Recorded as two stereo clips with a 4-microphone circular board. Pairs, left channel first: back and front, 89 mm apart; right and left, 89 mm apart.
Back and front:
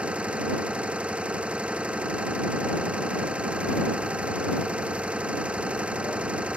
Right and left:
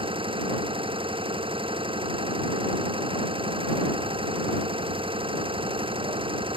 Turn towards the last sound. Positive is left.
turn(degrees=80)